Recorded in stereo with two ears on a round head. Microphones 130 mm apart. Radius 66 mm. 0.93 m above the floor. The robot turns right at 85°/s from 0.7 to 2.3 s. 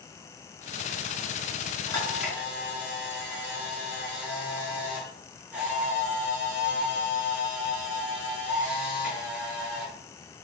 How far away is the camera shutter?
About 4 m.